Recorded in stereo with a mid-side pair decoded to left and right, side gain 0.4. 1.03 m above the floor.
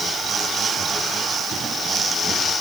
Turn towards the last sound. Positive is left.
No sound to turn to.